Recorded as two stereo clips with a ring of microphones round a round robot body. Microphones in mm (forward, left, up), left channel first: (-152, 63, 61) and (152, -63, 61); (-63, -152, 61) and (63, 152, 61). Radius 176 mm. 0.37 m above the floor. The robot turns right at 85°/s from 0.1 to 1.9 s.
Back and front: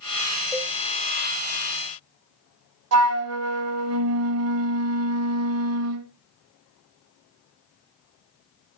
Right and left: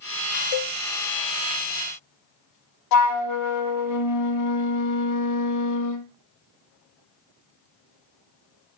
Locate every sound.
0.5 s a cowbell: 115° right, 0.6 m; by 0.8 s 90° right, 0.6 m
2.9 s a flute: 70° right, 0.9 m